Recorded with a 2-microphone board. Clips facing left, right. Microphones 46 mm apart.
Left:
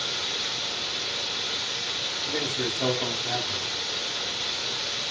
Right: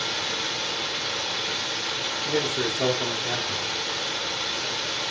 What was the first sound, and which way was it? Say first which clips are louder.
Running water: right 3 dB; 70° right (ahead or behind).